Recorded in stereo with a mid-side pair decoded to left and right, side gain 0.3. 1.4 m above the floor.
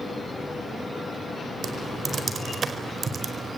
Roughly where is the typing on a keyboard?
Ahead right.